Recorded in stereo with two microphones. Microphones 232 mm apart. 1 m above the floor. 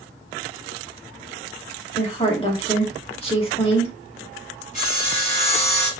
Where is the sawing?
30° left (ahead or behind), 3 m.